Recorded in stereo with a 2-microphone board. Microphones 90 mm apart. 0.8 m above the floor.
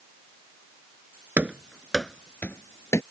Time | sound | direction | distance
1.4 | running footsteps | 20° right (ahead or behind) | ?